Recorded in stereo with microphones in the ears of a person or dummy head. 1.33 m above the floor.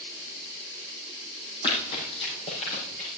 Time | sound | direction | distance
1.6 | running footsteps | 25° left (ahead or behind) | 4 m